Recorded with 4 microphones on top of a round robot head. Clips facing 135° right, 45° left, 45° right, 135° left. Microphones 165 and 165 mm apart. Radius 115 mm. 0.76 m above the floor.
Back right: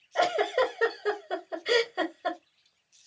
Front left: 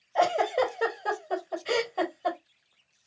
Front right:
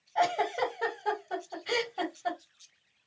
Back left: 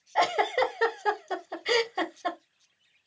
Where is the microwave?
I don't hear a microwave.